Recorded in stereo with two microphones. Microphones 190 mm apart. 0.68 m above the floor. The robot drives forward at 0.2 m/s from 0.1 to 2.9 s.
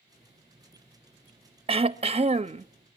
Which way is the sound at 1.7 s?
30° right (ahead or behind).